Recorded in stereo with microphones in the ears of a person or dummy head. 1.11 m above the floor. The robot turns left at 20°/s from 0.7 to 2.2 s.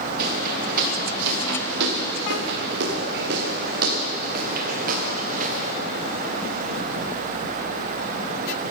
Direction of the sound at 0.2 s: 55° right (ahead or behind).